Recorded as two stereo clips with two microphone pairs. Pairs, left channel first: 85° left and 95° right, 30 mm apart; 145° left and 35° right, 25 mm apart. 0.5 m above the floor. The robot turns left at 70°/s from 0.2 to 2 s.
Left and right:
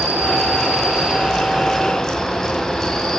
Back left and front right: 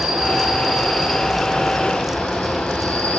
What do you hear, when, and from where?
0.0 s an insect: 75° right, 1.1 m; by 3.2 s 160° left, 1.1 m